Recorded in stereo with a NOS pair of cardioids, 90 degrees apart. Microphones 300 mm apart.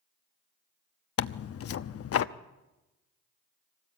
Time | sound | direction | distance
1.2 | tearing paper | 50° left | 0.9 m